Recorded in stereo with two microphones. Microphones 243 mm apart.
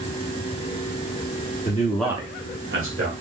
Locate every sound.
1.6 s a man speaking: 35° left (ahead or behind), 0.8 m; by 3.1 s 60° right (ahead or behind), 1.5 m